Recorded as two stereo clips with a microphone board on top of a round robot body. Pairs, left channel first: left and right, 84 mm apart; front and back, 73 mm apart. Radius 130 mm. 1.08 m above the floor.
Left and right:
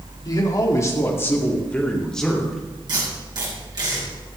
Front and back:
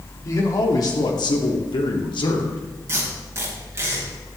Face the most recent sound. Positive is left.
turn(degrees=-125)